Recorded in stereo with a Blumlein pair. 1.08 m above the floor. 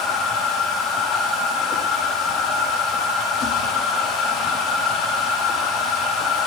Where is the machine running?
20° left, 1.4 m.